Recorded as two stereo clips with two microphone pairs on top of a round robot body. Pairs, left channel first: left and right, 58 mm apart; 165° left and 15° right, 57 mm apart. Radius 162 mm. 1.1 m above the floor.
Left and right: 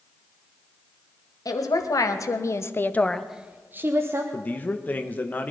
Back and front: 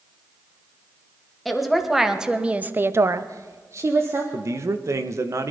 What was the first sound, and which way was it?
A woman speaking, 80° left.